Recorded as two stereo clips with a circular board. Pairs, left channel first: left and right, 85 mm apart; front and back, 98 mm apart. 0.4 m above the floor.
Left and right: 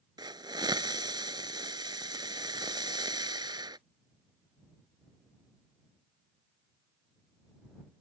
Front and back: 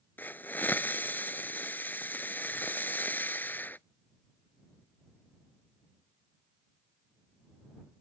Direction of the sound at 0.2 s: 70° right.